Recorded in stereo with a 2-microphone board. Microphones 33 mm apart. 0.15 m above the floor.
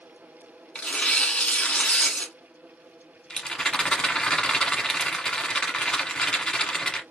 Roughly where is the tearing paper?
Left.